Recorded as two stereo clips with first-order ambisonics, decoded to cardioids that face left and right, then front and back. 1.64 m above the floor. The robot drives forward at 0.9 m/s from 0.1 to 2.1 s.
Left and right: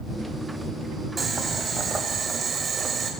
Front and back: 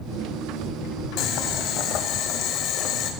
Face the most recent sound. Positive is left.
turn(degrees=-25)